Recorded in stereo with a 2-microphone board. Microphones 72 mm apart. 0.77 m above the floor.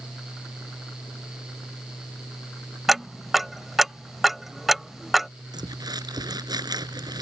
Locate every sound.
2.9 s ticking: 5° right (ahead or behind)
5.5 s crumpling: 65° right (ahead or behind)